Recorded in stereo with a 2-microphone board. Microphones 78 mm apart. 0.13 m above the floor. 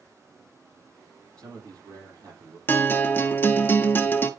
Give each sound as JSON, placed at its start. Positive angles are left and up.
{"t": 1.4, "sound": "a man speaking", "side_deg": -50, "distance_m": 5.5}
{"t": 2.7, "sound": "a guitar", "side_deg": 25, "distance_m": 0.8}